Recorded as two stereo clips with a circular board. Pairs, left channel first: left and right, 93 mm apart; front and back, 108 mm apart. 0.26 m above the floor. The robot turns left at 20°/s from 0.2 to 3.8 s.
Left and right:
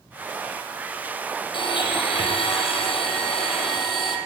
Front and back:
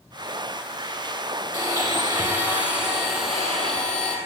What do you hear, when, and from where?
1.5 s a blender: 125° left, 3.5 m; by 4.2 s 80° left, 3.5 m